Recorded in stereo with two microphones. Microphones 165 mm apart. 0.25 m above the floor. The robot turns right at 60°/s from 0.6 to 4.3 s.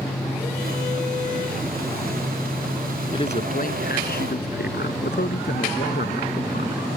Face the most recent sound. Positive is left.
turn(degrees=100)